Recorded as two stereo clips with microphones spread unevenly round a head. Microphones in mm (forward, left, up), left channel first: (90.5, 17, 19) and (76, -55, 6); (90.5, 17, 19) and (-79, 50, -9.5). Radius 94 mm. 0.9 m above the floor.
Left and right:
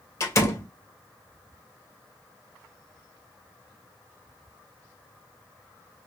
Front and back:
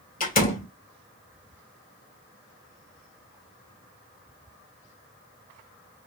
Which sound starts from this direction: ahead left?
A door slam, at 0.2 s.